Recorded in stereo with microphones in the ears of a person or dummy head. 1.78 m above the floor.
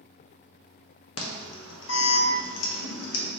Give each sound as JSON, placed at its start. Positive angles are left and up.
{"t": 1.2, "sound": "an alarm", "side_deg": 80, "distance_m": 0.7}